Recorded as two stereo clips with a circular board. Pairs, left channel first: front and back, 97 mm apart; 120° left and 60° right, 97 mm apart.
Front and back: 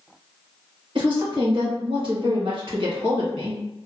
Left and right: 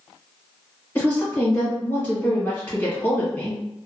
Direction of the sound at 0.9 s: Straight behind.